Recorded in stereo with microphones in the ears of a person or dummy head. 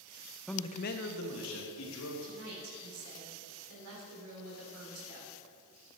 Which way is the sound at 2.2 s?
85° right.